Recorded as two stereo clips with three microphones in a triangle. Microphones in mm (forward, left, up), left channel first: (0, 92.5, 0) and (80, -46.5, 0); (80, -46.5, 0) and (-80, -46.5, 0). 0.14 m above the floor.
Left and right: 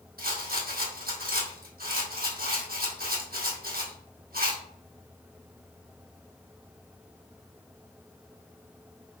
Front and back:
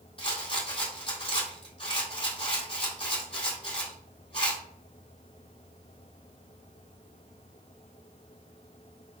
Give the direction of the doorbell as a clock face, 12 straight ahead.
I don't hear a doorbell.